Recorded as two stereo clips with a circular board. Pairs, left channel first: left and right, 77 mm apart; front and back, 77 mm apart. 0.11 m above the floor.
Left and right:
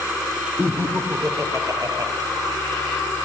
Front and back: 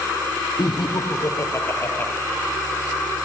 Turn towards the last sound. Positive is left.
turn(degrees=-65)